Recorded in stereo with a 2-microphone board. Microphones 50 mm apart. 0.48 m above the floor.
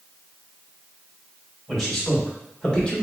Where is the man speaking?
5° left (ahead or behind), 1.7 m; by 3.0 s 20° left (ahead or behind), 1.0 m.